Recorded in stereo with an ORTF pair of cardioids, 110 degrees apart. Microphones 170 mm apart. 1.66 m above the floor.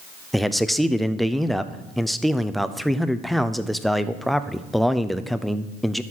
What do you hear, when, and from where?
0.3 s a man speaking: straight ahead, 0.5 m